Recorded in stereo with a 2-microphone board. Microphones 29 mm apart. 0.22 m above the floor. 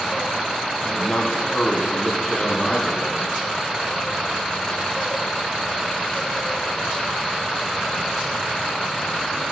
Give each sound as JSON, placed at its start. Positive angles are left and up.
{"t": 0.8, "sound": "a man speaking", "side_deg": 20, "distance_m": 1.1}